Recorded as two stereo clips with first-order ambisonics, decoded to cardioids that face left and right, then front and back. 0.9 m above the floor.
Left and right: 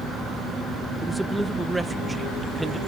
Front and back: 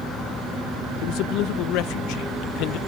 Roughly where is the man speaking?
Ahead.